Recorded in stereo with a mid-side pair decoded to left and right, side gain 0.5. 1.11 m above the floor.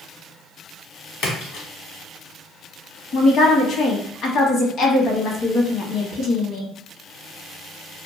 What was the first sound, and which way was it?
A splash, 70° left.